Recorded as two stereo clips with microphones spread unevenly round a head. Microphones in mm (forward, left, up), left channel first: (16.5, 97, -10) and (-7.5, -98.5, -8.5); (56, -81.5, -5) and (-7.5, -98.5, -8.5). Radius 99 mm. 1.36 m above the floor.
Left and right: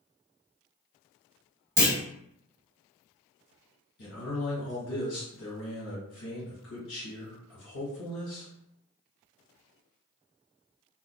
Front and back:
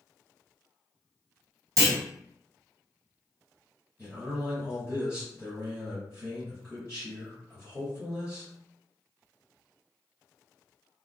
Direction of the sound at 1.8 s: 165° right.